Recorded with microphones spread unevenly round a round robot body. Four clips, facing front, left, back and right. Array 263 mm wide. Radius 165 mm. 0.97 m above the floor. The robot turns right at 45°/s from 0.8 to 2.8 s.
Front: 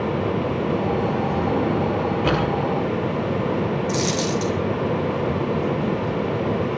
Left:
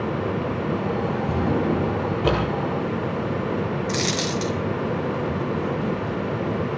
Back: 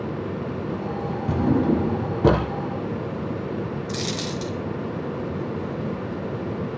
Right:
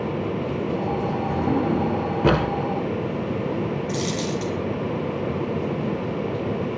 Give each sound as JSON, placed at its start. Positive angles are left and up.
{"t": 1.3, "sound": "a drawer", "azimuth_deg": 165, "distance_m": 2.0}
{"t": 3.9, "sound": "a dropped coin", "azimuth_deg": 90, "distance_m": 4.0}